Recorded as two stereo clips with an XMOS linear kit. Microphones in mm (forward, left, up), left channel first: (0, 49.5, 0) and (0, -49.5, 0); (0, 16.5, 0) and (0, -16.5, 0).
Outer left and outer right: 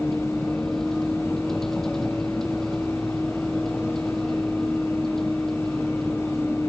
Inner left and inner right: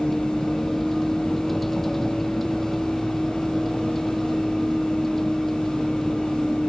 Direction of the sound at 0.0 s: 5° left (ahead or behind).